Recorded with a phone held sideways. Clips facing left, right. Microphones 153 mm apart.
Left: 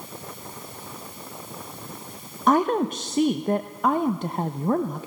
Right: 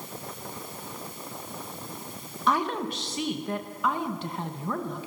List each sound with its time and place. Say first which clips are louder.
2.5 s a woman speaking: left 7 dB; 45° left (ahead or behind), 1.0 m